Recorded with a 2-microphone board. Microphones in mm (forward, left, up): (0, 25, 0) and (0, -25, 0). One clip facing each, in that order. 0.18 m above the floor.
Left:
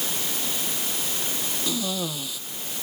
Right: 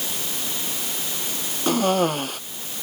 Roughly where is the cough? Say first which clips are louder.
Right 11 dB; right.